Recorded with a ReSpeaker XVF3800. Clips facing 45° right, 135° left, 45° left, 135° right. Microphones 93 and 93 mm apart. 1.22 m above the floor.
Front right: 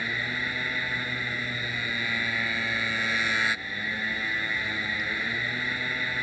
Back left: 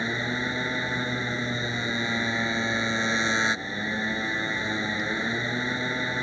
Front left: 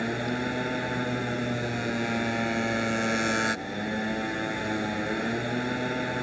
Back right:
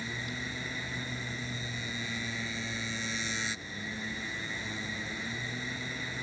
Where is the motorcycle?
70° left.